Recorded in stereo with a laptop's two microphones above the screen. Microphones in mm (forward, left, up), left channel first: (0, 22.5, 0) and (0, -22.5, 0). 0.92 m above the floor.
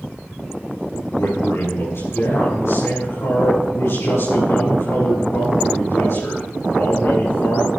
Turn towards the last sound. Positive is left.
turn(degrees=80)